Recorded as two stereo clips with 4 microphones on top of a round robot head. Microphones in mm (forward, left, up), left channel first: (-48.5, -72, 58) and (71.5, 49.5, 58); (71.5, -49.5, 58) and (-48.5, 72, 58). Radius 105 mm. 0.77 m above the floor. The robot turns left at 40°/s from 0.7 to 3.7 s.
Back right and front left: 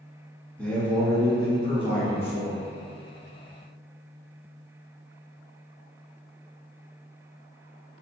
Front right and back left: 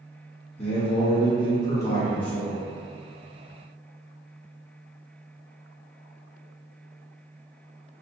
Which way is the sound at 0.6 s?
60° right.